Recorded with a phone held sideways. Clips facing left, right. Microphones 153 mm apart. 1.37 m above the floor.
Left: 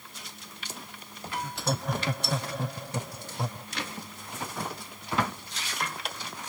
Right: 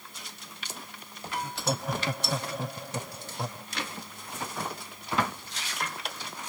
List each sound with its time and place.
1.4 s laughter: 5° right (ahead or behind); by 3.7 s centre (ahead or behind)